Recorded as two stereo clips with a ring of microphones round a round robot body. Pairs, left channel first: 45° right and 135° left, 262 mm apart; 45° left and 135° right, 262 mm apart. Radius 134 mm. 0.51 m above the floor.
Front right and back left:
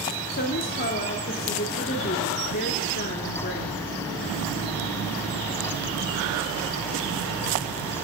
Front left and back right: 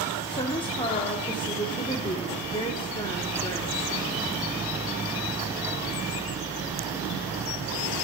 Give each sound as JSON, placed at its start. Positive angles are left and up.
{"t": 0.3, "sound": "a woman speaking", "azimuth_deg": -15, "distance_m": 0.9}